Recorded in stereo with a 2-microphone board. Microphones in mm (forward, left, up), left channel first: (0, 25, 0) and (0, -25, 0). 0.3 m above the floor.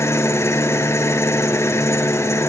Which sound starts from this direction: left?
An engine running, at 0.0 s.